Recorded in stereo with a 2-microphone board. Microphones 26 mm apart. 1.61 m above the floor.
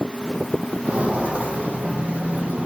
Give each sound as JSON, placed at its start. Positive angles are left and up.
{"t": 0.8, "sound": "footsteps", "side_deg": -50, "distance_m": 3.5}